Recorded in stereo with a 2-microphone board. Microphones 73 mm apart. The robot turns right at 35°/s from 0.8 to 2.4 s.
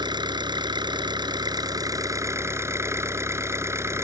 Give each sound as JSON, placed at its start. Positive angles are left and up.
{"t": 0.0, "sound": "an engine running", "azimuth_deg": -95}